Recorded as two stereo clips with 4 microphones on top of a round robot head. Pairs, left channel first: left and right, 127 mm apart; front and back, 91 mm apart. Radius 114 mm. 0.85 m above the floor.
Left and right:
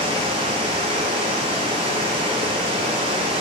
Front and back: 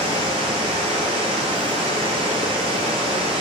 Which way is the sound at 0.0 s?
145° right.